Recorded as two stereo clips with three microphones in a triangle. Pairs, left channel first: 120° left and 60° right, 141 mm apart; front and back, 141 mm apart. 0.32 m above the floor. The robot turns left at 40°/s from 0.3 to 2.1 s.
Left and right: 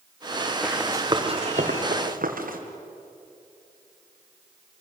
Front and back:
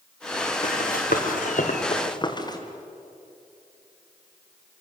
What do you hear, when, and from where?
0.6 s running footsteps: 30° left, 3.5 m; by 2.6 s 65° right, 4 m